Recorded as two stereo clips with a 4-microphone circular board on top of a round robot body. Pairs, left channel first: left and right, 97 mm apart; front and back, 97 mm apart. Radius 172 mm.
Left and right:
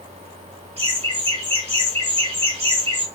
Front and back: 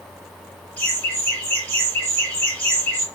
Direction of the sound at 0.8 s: 70° right.